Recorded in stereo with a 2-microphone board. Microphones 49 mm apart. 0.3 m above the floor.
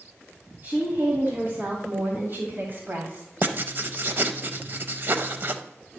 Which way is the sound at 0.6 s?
40° right (ahead or behind).